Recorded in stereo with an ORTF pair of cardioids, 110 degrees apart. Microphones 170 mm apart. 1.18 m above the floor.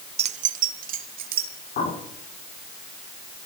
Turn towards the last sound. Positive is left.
turn(degrees=60)